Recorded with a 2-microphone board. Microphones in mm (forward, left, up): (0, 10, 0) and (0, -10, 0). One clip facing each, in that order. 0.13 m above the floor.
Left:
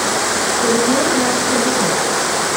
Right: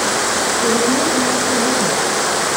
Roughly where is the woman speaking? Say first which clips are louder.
Left 2 dB; centre.